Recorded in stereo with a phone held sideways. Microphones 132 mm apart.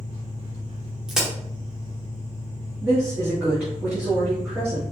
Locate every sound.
0.0 s an engine running: 55° right (ahead or behind), 2 m
1.1 s a crack: 5° right (ahead or behind), 1.7 m
2.8 s a woman speaking: 10° right (ahead or behind), 2 m